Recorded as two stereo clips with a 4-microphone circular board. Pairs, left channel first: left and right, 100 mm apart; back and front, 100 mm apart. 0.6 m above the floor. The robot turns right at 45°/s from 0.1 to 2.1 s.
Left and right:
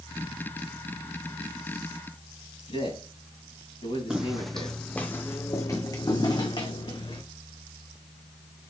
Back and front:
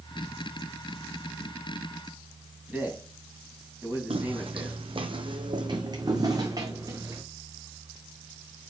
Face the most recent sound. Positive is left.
turn(degrees=60)